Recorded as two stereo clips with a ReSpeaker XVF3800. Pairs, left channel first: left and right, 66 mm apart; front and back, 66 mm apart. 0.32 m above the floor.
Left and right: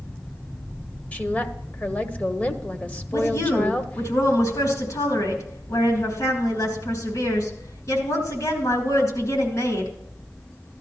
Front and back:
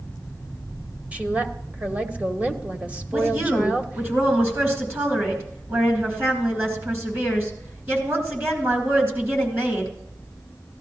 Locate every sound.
1.1 s a woman speaking: 135° left, 1.0 m
3.1 s a woman speaking: 125° left, 4 m